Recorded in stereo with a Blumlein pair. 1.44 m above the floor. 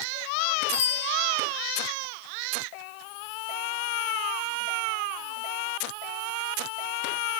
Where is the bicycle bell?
45° left, 6 m.